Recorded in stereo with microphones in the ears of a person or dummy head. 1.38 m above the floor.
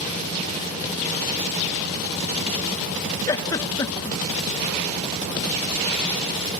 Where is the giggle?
20° left (ahead or behind), 0.9 m.